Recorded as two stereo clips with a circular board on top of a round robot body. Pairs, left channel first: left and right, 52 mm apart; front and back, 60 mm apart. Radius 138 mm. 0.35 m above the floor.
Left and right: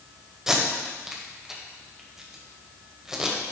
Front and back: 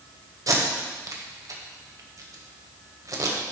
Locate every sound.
0.5 s tape being pulled: 170° right, 1.9 m